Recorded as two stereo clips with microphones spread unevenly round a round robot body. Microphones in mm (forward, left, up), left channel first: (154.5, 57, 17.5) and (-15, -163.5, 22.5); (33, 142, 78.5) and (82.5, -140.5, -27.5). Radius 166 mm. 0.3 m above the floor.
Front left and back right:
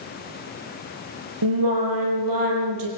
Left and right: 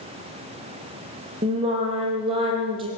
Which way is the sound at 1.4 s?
155° right.